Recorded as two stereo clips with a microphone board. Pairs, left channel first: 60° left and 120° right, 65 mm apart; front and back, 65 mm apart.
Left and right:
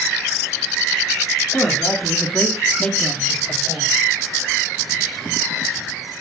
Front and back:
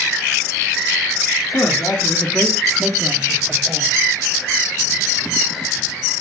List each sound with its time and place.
1.5 s a man speaking: 5° left, 1.3 m; by 3.9 s 140° left, 1.6 m